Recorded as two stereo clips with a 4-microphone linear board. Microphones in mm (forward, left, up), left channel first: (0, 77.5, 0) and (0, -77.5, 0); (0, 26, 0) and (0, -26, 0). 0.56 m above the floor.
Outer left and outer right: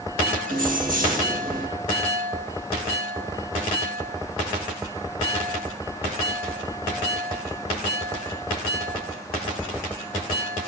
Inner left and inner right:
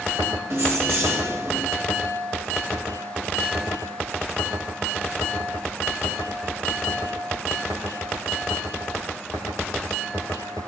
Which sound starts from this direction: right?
Keys jangling, at 0.5 s.